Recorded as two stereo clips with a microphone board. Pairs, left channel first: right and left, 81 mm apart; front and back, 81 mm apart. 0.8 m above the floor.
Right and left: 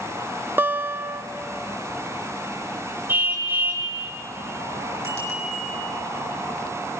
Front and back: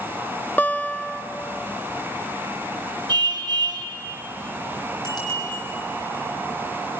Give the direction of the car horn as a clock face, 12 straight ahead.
7 o'clock.